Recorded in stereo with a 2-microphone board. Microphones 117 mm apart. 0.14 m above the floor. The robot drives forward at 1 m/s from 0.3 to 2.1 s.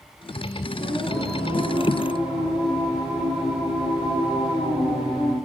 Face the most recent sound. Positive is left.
turn(degrees=40)  # may be behind; listen again after turning